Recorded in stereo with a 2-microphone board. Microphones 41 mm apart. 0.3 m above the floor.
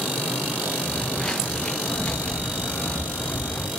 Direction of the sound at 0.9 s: 5° left (ahead or behind).